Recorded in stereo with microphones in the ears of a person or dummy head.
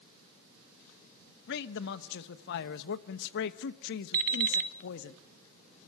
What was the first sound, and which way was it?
A man speaking, 65° left (ahead or behind).